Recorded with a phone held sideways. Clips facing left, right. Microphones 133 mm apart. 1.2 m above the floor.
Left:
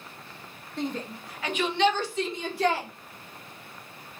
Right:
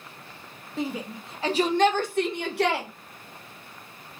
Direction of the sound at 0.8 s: 5° right (ahead or behind).